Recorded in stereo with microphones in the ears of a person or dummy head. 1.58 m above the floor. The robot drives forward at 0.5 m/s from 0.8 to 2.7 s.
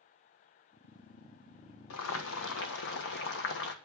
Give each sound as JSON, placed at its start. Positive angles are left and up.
{"t": 1.9, "sound": "boiling", "side_deg": 80, "distance_m": 1.3}